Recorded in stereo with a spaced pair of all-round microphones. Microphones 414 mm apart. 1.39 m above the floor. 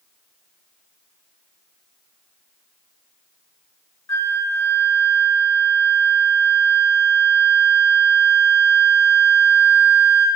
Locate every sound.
4.1 s a flute: 40° left (ahead or behind), 3 m